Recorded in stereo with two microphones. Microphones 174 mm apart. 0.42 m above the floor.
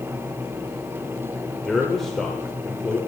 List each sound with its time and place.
1.6 s a man speaking: centre (ahead or behind), 0.9 m